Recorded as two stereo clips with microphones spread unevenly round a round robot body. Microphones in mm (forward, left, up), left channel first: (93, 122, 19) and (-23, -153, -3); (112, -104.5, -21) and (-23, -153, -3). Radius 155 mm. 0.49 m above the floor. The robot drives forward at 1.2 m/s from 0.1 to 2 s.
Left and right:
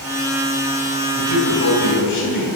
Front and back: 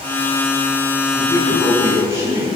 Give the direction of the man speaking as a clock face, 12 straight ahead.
8 o'clock.